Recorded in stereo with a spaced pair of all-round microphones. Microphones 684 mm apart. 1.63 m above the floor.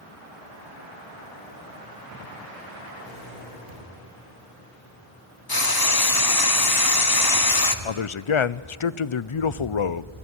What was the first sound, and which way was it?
A thud, 70° right (ahead or behind).